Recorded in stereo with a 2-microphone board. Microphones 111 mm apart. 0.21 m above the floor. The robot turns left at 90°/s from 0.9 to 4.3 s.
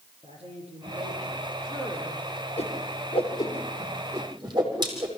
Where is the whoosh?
60° left (ahead or behind), 5.5 m; by 5.1 s 35° right (ahead or behind), 5.5 m.